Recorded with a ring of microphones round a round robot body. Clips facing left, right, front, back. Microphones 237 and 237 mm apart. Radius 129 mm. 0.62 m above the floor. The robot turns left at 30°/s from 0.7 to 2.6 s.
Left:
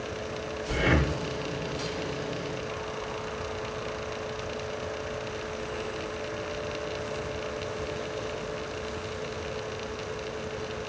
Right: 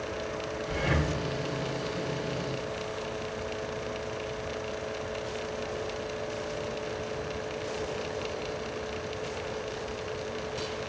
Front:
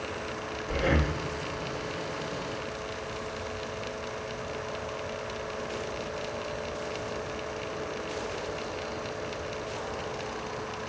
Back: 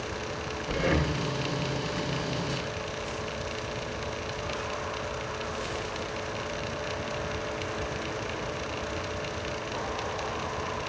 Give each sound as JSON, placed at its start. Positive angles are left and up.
{"t": 0.7, "sound": "breathing", "azimuth_deg": 105, "distance_m": 1.2}